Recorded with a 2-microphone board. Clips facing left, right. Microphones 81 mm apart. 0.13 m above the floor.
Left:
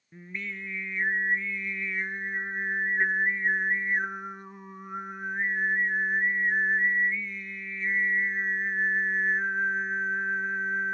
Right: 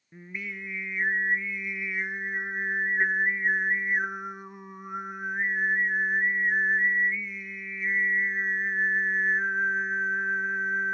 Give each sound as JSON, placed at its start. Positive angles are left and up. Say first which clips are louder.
{"t": 0.1, "sound": "singing", "louder": "even", "side_deg": -10, "distance_m": 0.9}